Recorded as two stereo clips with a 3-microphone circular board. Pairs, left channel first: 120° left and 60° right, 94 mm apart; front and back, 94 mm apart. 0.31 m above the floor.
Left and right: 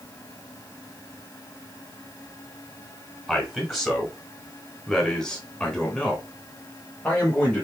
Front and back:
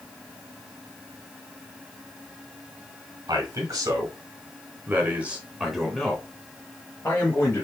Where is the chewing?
No chewing in this recording.